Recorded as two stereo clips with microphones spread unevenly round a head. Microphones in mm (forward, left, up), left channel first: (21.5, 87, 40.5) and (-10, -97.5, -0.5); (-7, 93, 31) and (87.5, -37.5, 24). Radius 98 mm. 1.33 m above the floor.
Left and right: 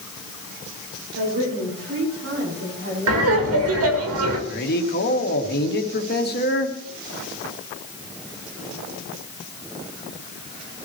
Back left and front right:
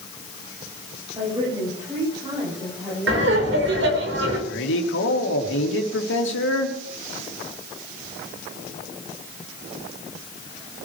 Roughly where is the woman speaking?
Behind right.